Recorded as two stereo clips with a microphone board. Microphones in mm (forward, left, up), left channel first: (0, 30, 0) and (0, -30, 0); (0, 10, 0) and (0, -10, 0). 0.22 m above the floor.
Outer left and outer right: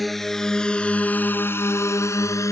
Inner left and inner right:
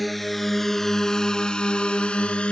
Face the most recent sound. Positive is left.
turn(degrees=65)  # may be behind; listen again after turning